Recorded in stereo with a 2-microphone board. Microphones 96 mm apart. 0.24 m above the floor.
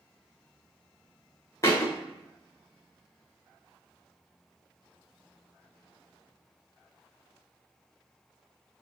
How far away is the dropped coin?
No dropped coin in this recording.